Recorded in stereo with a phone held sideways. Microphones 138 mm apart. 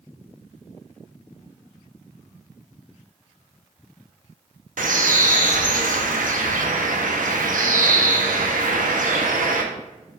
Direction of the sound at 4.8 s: 80° right.